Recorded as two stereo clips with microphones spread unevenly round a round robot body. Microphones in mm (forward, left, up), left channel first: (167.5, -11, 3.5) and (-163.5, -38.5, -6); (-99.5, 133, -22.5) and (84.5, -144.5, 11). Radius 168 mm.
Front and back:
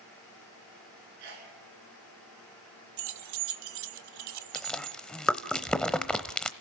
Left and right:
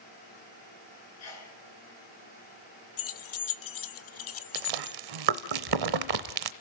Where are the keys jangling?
160° left, 0.8 m.